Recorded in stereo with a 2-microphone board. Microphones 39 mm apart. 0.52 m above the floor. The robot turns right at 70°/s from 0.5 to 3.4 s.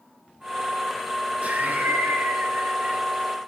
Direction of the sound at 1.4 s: 140° right.